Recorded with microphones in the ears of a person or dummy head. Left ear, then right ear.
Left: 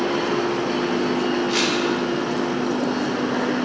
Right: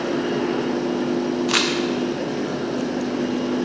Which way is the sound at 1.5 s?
40° right (ahead or behind).